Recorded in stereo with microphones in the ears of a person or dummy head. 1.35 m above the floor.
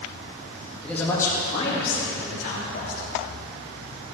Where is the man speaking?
5° left (ahead or behind), 2.5 m; by 3.1 s 55° left (ahead or behind), 4.5 m.